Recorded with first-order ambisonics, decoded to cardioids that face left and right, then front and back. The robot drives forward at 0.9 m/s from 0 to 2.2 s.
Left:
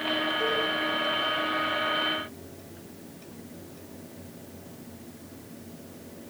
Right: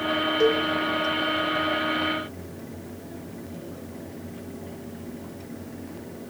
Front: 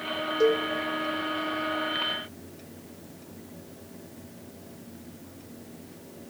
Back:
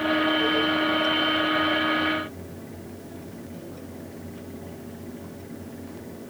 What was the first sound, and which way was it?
A cowbell, 40° right.